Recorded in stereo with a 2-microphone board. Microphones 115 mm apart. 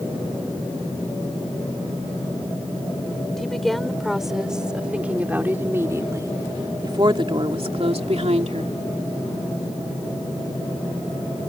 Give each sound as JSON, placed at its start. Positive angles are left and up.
{"t": 3.3, "sound": "a woman speaking", "side_deg": 5}